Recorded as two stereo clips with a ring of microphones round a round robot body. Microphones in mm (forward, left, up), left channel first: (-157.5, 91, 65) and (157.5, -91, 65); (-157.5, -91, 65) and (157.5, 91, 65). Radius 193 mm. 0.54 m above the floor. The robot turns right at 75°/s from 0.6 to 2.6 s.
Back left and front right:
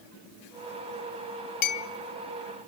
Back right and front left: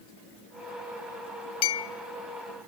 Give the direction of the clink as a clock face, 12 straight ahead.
6 o'clock.